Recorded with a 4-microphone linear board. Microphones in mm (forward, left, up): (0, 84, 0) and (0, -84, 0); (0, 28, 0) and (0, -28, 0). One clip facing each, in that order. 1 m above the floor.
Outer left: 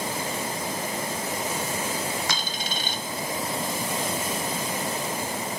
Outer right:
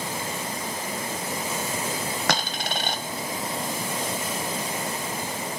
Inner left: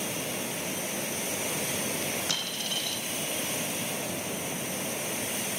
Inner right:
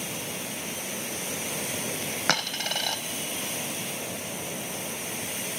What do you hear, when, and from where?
2.3 s a dropped coin: 65° right (ahead or behind), 1.5 m